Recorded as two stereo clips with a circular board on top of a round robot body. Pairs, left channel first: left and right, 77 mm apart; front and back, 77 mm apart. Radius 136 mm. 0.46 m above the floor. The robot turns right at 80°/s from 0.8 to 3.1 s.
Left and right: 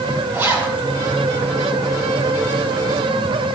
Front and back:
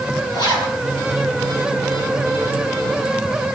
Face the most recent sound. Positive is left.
turn(degrees=160)